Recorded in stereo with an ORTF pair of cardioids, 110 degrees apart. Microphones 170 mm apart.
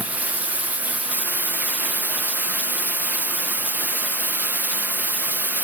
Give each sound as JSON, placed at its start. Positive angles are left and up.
{"t": 0.0, "sound": "running water", "azimuth_deg": -10, "distance_m": 0.8}